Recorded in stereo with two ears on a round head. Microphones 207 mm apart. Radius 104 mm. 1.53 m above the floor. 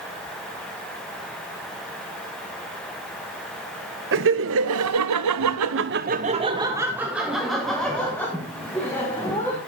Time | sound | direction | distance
4.1 | laughter | 55° right (ahead or behind) | 1.5 m